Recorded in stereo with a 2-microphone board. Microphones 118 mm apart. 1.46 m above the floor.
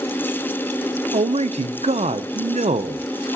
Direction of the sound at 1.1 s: 70° right (ahead or behind).